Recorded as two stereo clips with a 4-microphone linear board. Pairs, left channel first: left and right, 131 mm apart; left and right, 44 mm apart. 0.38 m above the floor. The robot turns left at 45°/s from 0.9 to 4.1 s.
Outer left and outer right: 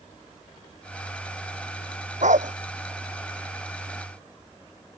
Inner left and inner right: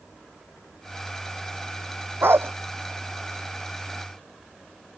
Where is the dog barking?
85° right; by 2.5 s 80° right.